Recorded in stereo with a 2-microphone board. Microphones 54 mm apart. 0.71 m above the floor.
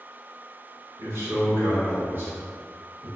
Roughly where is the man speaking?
Right.